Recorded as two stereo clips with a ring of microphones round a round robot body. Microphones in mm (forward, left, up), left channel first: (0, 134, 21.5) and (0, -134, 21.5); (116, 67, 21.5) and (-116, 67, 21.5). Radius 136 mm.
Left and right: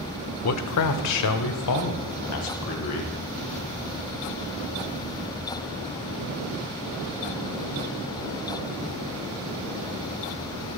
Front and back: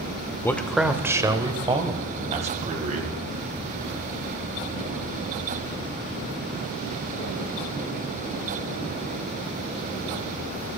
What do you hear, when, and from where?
0.4 s a man speaking: 80° left, 1.2 m; by 3.1 s 125° left, 3.5 m